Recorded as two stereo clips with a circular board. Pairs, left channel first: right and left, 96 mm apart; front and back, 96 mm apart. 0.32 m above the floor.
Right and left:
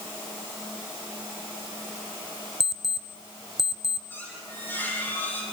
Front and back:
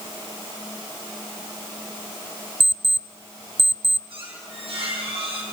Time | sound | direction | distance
2.6 | an alarm clock | 175° left | 0.7 m
4.1 | a squeak | 160° right | 6 m